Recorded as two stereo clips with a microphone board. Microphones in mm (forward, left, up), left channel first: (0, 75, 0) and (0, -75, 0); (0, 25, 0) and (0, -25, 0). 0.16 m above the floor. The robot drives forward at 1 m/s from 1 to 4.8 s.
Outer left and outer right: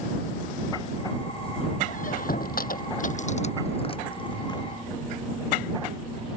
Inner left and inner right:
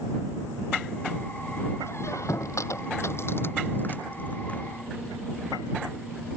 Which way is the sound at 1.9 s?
60° left (ahead or behind).